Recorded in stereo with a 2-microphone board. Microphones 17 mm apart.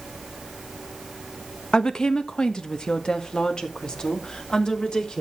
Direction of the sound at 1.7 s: 55° left (ahead or behind).